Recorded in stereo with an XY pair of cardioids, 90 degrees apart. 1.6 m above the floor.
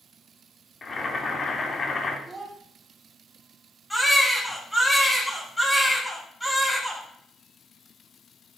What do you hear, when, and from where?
0.8 s boiling: 40° left, 3 m
2.3 s a child speaking: 30° right, 4.5 m
3.9 s a baby crying: 10° left, 10 m